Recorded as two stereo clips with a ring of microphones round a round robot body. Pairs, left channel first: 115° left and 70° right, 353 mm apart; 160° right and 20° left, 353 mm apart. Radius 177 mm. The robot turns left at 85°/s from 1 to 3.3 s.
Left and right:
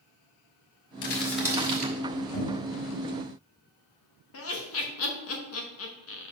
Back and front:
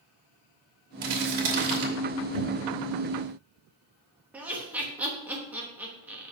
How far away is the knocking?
About 4 m.